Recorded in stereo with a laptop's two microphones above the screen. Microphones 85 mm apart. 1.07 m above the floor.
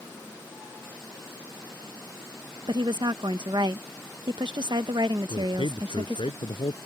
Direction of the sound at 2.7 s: 65° right (ahead or behind).